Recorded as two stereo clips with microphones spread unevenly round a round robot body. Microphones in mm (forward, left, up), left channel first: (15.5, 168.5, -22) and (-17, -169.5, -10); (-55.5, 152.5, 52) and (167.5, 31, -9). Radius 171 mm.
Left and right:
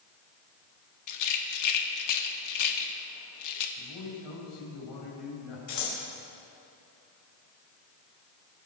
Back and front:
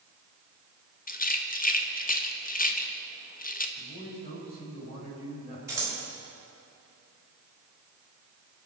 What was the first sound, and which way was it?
A rattle, 90° left.